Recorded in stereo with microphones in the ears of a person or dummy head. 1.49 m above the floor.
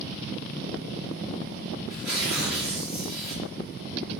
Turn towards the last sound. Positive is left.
turn(degrees=-15)  # may be behind; listen again after turning